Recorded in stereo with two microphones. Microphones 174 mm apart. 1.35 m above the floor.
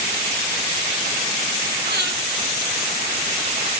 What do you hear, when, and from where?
1.9 s breathing: 85° right, 8 m